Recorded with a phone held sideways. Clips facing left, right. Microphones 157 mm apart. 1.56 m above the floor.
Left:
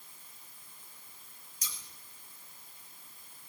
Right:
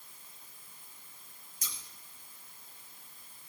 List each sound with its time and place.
1.6 s scissors: 55° right (ahead or behind), 1.6 m